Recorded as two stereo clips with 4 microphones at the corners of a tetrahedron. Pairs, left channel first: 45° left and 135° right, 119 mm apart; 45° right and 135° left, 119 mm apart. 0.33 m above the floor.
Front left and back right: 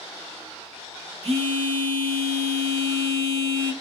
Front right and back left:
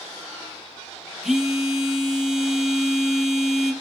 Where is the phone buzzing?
140° right, 0.7 m.